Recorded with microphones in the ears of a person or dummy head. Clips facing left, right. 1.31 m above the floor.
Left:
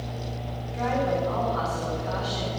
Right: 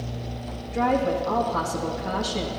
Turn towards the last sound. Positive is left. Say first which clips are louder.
# right 3 dB
turn(degrees=-80)